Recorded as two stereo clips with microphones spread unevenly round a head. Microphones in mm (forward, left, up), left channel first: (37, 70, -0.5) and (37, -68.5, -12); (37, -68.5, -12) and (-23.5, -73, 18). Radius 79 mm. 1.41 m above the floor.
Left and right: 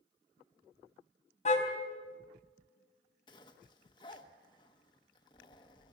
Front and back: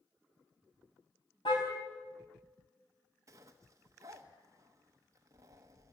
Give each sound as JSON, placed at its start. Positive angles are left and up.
{"t": 1.4, "sound": "a car horn", "azimuth_deg": 55, "distance_m": 4.5}
{"t": 3.3, "sound": "a zipper", "azimuth_deg": 150, "distance_m": 1.1}